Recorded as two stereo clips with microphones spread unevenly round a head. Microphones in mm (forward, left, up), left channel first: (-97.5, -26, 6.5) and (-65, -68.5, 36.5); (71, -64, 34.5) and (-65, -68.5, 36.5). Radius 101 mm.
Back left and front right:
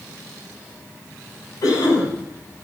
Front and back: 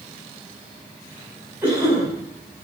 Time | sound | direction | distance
1.6 | a cough | 100° left | 9 m